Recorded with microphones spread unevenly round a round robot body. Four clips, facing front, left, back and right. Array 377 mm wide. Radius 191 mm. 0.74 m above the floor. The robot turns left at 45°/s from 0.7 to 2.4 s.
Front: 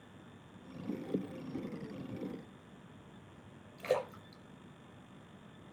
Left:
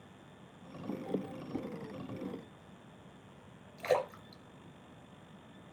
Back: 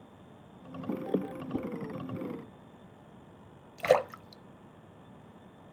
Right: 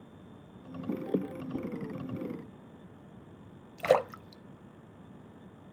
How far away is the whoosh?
About 1.8 m.